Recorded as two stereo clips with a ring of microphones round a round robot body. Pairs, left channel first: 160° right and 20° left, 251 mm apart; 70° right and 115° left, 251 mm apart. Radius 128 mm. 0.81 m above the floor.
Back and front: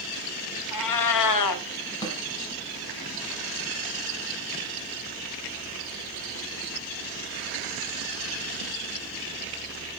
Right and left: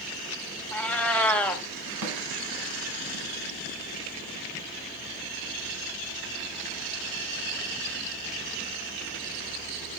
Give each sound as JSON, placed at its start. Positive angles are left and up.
{"t": 0.7, "sound": "a cat meowing", "azimuth_deg": -155, "distance_m": 1.2}
{"t": 2.0, "sound": "a snare drum", "azimuth_deg": 130, "distance_m": 3.0}